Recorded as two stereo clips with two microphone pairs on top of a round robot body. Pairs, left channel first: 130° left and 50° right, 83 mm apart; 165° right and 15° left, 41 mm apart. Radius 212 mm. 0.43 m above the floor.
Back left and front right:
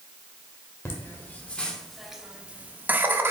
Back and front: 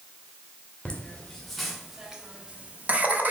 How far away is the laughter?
About 1.1 m.